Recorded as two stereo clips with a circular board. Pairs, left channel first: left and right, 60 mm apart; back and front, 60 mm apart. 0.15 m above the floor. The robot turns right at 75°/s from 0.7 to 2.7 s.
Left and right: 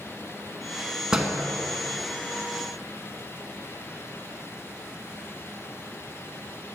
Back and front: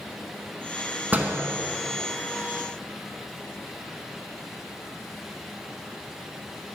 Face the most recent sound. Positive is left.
turn(degrees=95)